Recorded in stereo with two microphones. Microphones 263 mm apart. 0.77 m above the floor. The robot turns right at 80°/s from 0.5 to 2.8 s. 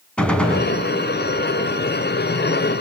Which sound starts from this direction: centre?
A gunshot, at 0.2 s.